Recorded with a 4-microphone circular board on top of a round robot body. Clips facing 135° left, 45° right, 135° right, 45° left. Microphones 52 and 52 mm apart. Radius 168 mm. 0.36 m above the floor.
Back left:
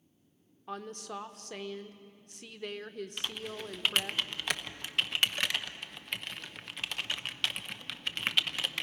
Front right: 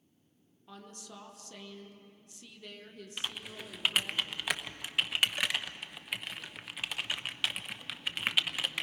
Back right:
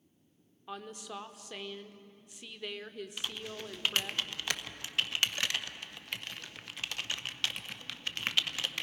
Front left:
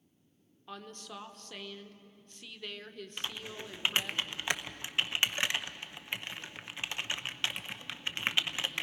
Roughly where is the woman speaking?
Behind left.